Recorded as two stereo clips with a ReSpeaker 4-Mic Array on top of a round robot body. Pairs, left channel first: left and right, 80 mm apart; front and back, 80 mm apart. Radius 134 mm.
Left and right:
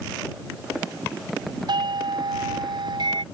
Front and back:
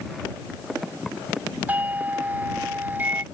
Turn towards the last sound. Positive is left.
turn(degrees=-110)